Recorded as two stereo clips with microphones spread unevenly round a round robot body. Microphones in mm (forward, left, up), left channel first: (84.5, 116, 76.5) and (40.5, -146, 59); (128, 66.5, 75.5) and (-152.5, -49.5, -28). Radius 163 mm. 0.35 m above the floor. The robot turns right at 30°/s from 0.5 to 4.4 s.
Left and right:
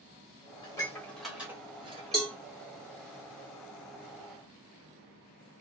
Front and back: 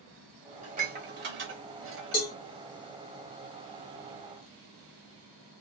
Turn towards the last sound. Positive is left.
turn(degrees=55)